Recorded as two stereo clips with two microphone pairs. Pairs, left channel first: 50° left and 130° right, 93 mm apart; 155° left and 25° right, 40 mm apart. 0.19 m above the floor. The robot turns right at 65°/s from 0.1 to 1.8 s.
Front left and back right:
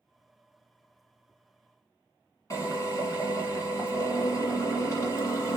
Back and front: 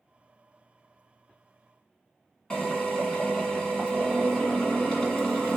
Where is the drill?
85° left, 1.9 m.